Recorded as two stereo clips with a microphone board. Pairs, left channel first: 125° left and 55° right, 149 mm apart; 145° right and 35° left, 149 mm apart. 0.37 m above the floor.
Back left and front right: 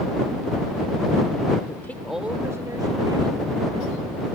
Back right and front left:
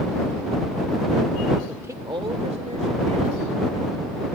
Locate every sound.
1.7 s a woman speaking: 110° left; by 4.2 s straight ahead